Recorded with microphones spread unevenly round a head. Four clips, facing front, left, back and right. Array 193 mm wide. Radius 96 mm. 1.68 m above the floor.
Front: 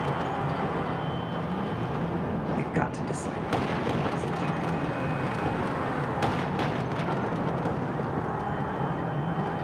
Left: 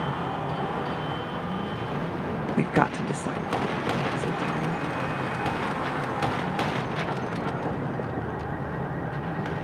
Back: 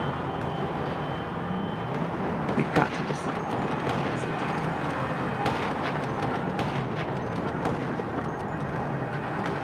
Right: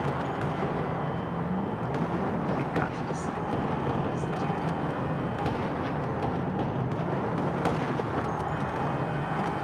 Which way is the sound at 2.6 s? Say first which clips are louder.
Left 6 dB, back 4 dB; 130° left.